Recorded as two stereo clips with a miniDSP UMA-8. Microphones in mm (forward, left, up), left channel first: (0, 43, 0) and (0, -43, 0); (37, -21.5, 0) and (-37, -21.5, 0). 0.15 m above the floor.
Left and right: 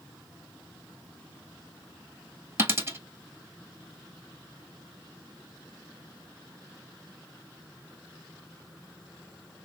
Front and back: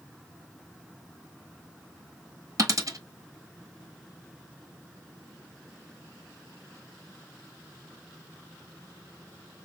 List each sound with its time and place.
2.6 s a dropped coin: 145° right, 1.1 m